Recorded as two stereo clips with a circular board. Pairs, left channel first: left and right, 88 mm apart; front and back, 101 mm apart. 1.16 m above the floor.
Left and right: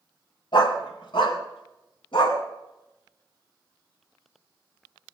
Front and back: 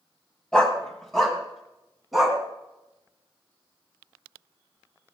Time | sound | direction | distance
0.5 | a dog barking | 80° left | 1.8 m